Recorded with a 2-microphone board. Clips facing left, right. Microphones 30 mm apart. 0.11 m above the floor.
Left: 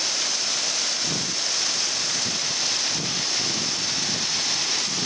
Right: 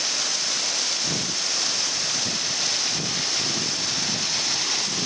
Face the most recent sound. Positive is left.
No sound to turn to.